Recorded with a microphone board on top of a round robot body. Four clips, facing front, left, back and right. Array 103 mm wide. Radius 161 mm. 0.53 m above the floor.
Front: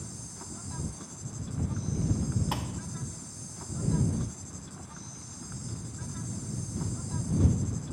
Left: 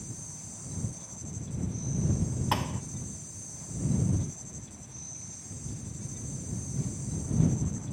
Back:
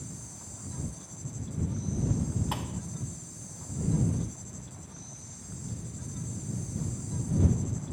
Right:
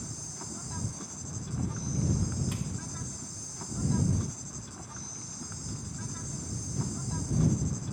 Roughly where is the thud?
Left.